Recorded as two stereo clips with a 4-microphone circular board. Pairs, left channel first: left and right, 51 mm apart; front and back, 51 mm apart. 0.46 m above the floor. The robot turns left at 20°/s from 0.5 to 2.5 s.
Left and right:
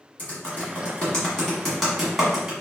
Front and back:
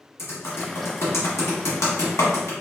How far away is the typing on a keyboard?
About 1.5 m.